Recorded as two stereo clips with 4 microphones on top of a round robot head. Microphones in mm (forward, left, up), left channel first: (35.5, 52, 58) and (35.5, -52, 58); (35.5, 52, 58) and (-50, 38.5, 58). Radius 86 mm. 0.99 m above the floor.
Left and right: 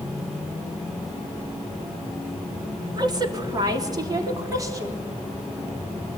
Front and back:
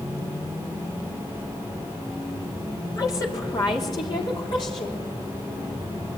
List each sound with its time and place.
3.0 s a woman speaking: 45° right, 2.5 m; by 5.1 s 30° right, 4 m